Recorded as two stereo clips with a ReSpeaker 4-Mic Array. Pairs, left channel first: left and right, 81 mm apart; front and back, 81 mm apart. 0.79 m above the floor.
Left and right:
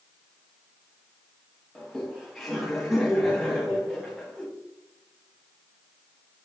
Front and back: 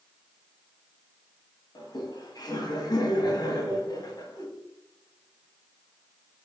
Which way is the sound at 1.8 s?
Straight ahead.